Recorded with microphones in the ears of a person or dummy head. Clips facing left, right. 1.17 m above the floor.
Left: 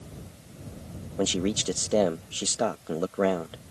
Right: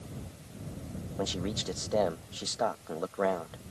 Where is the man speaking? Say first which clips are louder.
Left 8 dB; 40° left (ahead or behind).